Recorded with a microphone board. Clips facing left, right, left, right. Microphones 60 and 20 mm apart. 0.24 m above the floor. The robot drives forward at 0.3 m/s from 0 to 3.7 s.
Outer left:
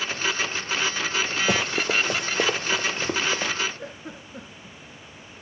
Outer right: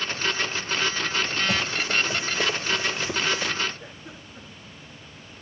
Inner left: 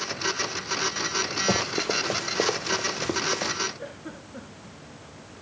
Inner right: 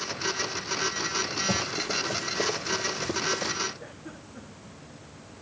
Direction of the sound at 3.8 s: 55° left (ahead or behind).